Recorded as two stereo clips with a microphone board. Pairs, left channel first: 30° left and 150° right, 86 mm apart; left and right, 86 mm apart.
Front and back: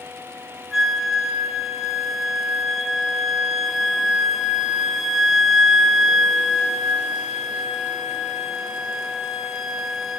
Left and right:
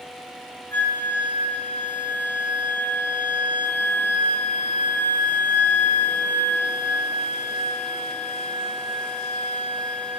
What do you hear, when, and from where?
0.7 s a flute: 130° left, 0.6 m